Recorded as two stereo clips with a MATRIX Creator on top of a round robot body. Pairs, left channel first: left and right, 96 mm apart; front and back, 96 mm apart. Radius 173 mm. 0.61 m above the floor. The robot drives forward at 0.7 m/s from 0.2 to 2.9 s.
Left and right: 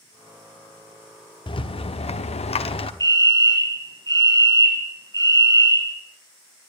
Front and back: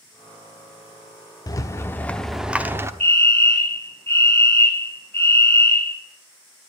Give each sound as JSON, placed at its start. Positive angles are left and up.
{"t": 1.5, "sound": "a rattle", "azimuth_deg": 50, "distance_m": 1.0}
{"t": 3.0, "sound": "a fire alarm", "azimuth_deg": -65, "distance_m": 2.5}